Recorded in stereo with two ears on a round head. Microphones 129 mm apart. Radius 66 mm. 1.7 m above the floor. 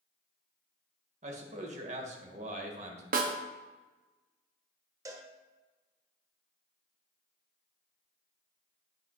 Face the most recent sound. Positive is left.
turn(degrees=-25)  # may be behind; listen again after turning